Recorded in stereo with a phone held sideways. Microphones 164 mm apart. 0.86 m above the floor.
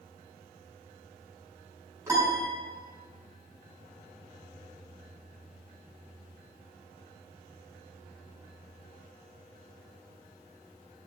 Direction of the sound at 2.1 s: 15° right (ahead or behind).